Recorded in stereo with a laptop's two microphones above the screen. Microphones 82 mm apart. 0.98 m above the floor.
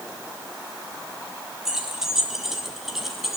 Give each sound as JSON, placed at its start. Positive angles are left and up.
{"t": 1.6, "sound": "keys jangling", "side_deg": -5, "distance_m": 5.0}